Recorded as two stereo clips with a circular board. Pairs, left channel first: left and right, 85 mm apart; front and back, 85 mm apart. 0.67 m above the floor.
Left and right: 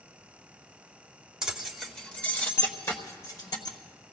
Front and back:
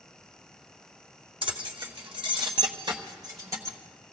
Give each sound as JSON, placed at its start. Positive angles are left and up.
{"t": 1.4, "sound": "keys jangling", "azimuth_deg": -175, "distance_m": 1.3}